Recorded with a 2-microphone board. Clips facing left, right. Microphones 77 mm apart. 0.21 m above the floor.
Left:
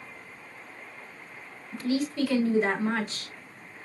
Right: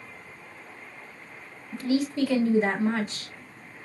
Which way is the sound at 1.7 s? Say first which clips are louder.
Right 2 dB; 10° right (ahead or behind).